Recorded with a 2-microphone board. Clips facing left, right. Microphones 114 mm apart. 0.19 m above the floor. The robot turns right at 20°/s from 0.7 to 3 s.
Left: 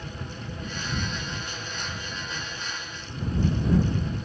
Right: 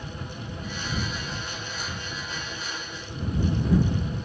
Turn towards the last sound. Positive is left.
No sound to turn to.